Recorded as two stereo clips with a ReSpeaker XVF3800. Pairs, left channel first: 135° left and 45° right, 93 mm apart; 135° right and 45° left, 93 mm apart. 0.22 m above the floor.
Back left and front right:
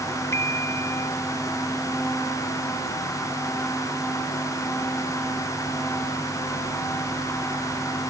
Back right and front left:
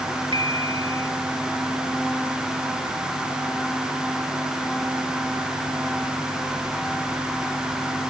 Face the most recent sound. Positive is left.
turn(degrees=75)